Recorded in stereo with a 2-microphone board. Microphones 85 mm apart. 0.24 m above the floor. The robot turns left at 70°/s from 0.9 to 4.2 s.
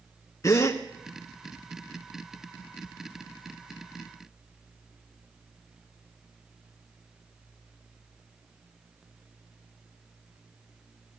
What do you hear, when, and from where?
0.4 s a gasp: 40° left (ahead or behind), 0.9 m